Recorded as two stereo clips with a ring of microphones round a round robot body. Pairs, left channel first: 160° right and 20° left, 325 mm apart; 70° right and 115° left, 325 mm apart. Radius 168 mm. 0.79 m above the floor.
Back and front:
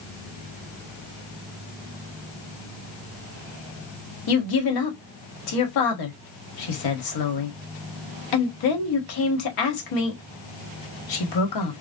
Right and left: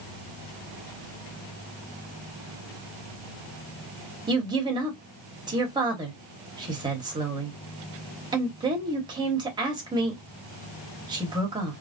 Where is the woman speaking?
170° right, 1.5 m.